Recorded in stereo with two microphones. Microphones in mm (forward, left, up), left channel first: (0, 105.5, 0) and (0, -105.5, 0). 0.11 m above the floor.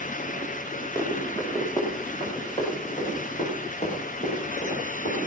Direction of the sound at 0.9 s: 10° left (ahead or behind).